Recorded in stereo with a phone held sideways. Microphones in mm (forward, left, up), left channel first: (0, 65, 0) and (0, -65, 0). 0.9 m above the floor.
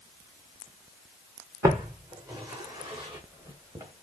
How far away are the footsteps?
About 2 m.